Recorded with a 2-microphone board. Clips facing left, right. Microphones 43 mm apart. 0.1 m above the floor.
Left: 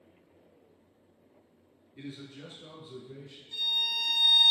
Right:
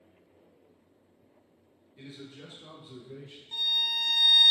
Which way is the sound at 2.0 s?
25° left (ahead or behind).